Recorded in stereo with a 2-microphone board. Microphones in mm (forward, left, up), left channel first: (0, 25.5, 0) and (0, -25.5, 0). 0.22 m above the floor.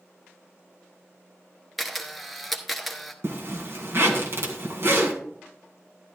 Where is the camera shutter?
Centre (ahead or behind), 1.1 m.